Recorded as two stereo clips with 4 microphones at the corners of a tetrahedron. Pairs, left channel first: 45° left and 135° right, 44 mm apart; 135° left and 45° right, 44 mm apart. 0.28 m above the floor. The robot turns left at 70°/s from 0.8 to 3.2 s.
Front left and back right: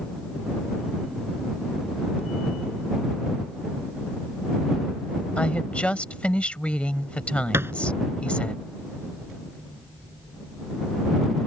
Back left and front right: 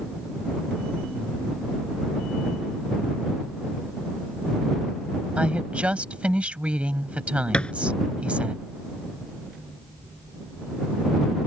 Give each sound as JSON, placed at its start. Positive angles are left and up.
{"t": 5.4, "sound": "a woman speaking", "azimuth_deg": 0}
{"t": 7.5, "sound": "a thud", "azimuth_deg": -155}